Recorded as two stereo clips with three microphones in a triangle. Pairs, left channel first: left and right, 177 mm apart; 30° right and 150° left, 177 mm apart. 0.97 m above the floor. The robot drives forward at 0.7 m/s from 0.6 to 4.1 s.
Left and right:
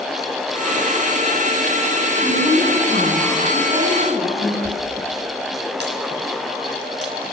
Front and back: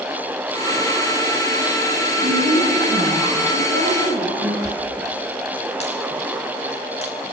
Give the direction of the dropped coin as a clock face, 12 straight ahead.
3 o'clock.